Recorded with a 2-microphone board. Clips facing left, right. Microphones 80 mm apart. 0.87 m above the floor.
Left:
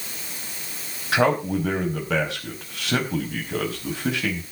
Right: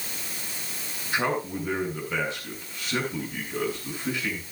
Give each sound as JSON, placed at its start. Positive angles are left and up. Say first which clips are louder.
{"t": 1.1, "sound": "a man speaking", "louder": "left 7 dB", "side_deg": 80, "distance_m": 4.5}